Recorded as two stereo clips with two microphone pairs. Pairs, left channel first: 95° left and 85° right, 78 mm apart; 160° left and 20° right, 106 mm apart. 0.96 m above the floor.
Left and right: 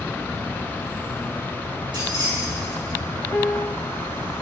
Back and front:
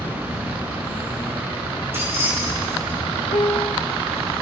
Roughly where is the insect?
Behind right.